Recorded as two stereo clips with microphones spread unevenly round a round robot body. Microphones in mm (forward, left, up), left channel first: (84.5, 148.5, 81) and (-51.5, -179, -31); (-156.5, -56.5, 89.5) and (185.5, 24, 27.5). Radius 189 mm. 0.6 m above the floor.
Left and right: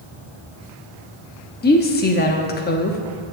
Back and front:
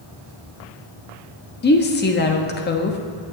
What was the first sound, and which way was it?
A woman speaking, 140° left.